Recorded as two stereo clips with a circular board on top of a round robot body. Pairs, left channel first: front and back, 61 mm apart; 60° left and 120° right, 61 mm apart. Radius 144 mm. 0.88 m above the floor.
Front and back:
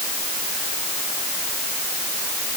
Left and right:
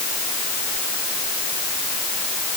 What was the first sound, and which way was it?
Only background noise.